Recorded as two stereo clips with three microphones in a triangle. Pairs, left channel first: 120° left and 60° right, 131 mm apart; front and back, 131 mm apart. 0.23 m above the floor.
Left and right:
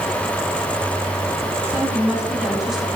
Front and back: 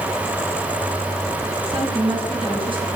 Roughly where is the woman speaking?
Behind right.